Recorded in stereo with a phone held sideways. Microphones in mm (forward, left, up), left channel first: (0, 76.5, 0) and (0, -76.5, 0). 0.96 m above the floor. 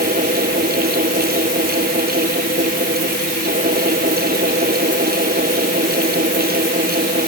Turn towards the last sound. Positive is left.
turn(degrees=-85)